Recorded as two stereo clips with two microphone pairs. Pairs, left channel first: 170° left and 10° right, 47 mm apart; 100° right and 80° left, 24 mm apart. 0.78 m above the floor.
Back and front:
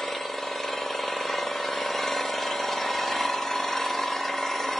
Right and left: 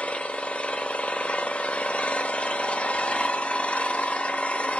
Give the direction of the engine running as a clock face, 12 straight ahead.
4 o'clock.